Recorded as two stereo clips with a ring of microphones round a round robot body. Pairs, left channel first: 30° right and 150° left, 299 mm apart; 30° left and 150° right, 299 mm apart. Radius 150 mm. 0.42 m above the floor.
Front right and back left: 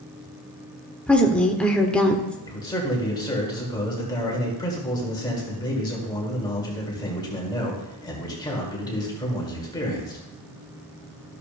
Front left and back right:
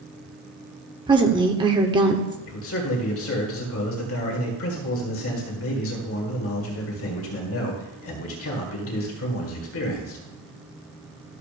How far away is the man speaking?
About 1.8 m.